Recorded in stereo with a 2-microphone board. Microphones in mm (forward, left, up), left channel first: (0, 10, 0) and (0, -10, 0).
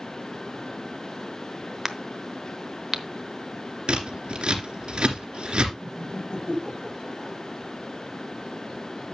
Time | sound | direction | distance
1.9 | a crack | 20° right (ahead or behind) | 0.9 m
3.9 | scissors | 60° right (ahead or behind) | 2.5 m
5.8 | laughter | 60° left (ahead or behind) | 3 m